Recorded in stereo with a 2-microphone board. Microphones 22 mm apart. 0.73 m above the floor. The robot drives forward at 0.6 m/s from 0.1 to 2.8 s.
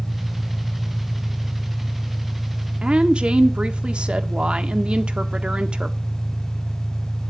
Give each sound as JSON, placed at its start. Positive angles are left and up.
{"t": 0.0, "sound": "an engine running", "side_deg": 75, "distance_m": 3.5}
{"t": 2.8, "sound": "a woman speaking", "side_deg": -50, "distance_m": 1.7}